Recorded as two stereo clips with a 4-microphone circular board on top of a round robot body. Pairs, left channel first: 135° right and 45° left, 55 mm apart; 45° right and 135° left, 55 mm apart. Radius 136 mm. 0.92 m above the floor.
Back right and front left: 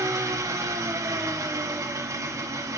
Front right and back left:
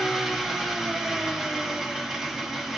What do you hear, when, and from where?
0.0 s an engine running: 55° left, 1.9 m